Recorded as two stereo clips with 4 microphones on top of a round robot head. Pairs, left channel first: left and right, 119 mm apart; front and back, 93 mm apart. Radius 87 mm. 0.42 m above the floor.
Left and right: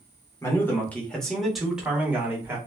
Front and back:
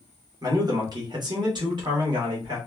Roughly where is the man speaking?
Behind left.